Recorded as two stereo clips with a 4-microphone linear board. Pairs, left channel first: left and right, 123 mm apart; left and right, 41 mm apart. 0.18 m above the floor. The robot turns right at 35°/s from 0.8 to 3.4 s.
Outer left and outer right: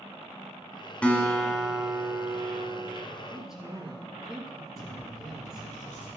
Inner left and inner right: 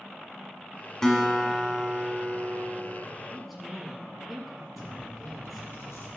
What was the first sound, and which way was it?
A guitar, 160° left.